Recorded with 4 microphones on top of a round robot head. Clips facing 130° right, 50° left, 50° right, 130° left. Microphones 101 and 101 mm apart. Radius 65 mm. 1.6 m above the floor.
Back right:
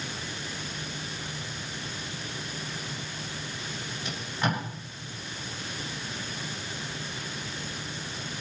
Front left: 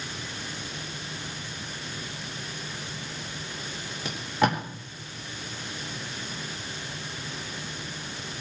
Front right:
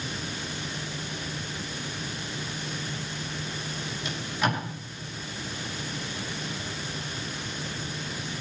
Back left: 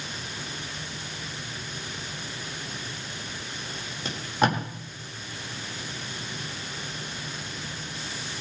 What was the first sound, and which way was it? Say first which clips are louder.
Tape being pulled: front left 6 dB, back left 4 dB; 80° left.